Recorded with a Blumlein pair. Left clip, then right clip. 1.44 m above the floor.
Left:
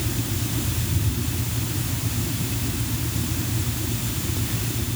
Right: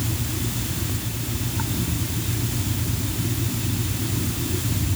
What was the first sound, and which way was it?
Only background noise.